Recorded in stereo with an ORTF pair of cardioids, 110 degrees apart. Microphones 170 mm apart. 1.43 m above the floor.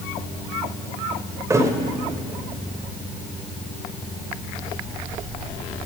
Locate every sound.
1.5 s a thud: 20° right, 3 m